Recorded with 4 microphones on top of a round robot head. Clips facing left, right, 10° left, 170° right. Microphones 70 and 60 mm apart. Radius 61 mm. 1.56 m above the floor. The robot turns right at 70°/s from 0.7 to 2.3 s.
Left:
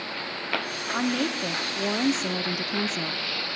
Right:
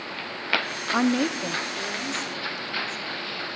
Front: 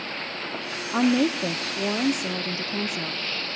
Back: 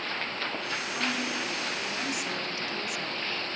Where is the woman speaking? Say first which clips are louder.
Right 4 dB, front 13 dB; 30° right, 0.6 m; by 3.2 s 65° left, 0.6 m.